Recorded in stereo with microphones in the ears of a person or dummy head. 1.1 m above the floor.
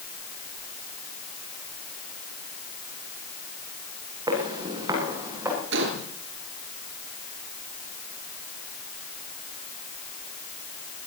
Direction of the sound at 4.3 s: 25° right (ahead or behind).